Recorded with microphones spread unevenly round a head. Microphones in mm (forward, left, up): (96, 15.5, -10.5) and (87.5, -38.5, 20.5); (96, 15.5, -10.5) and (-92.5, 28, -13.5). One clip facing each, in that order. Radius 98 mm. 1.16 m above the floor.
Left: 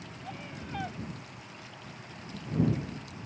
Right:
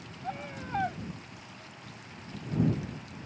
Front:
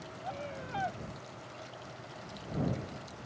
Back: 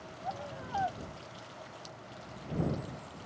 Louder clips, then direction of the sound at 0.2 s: Right 5 dB, even; 65° right.